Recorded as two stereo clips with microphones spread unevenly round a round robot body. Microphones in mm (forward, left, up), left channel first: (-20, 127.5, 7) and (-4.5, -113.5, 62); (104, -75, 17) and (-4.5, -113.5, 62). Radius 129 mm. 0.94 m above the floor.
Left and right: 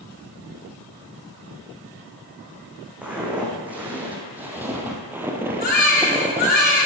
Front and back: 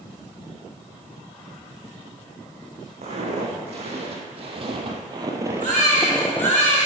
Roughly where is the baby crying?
Behind left.